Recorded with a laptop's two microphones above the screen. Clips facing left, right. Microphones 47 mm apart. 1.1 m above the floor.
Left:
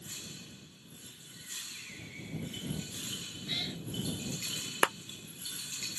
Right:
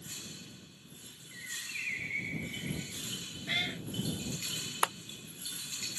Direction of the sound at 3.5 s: 50° right (ahead or behind).